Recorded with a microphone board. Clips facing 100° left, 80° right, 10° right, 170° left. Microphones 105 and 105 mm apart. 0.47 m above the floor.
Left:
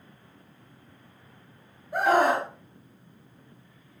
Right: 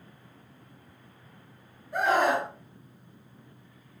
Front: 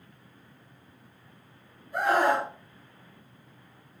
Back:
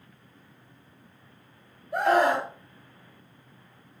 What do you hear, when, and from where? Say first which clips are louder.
1.9 s a scream: left 2 dB, back 2 dB; 160° left, 2 m